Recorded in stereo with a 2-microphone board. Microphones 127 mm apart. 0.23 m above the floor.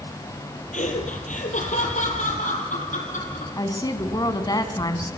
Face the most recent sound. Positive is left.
turn(degrees=30)  # may be behind; listen again after turning